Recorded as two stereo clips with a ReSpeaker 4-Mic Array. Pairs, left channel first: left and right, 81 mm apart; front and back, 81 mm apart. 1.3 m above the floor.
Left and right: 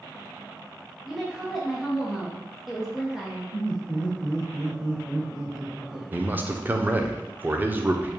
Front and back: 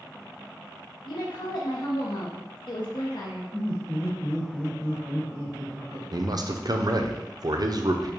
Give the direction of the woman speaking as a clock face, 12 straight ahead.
12 o'clock.